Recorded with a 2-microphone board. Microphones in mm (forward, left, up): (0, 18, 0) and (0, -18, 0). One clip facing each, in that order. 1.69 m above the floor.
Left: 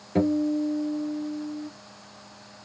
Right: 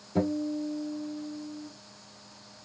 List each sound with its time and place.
0.1 s a guitar: 60° left (ahead or behind), 2.5 m